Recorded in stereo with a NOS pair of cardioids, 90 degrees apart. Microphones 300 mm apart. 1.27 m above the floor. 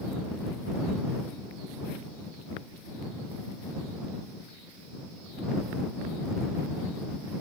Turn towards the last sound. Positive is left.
No sound to turn to.